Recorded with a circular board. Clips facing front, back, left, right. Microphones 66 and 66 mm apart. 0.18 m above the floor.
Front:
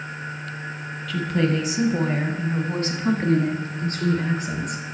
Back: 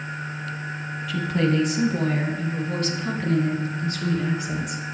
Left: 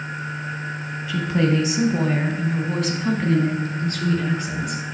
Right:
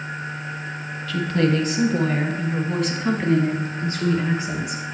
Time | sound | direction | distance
1.1 | a woman speaking | 115° left | 1.3 m